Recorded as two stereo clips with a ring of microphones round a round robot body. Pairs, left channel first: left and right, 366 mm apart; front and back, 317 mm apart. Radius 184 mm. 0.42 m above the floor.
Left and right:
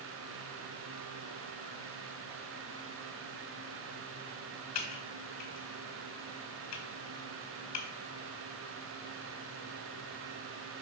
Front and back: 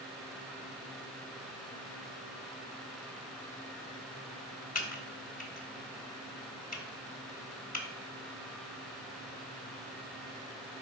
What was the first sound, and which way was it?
Typing on a keyboard, 60° left.